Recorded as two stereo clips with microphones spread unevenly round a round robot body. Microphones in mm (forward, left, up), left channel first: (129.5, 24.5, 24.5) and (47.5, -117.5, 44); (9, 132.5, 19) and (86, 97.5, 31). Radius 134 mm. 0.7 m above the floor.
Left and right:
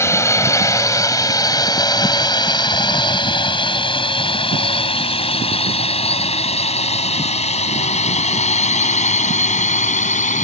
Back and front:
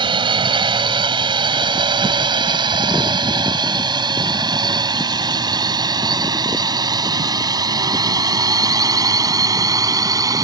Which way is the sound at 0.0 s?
15° right.